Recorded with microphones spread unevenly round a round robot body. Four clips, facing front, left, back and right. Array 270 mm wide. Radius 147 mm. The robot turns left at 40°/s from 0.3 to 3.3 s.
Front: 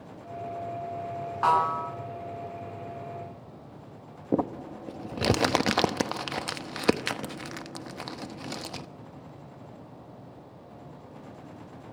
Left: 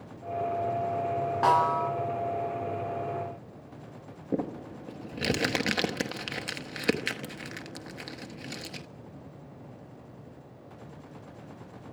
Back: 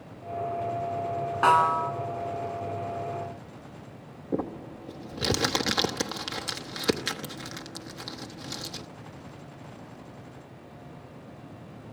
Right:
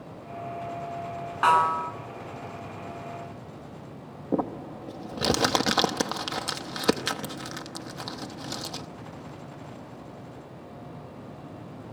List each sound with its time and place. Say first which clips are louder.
1.4 s a snare drum: right 3 dB, back 3 dB; 155° left, 3.5 m; by 1.9 s 135° left, 3.5 m
4.3 s crumpling: right 4 dB, front 3 dB; 30° right, 1.0 m